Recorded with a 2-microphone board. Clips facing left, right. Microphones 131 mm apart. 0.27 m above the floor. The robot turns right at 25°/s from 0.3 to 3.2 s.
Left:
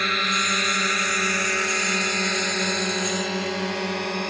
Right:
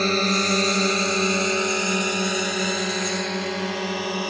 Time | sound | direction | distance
0.0 | a drone | 35° right (ahead or behind) | ?